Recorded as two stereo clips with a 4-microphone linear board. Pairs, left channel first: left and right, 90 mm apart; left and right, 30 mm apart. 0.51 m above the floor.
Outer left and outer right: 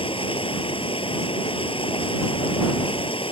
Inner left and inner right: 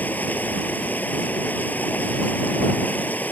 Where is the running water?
80° left.